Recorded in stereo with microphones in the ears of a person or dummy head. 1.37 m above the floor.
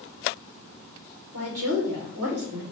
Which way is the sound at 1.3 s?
85° right.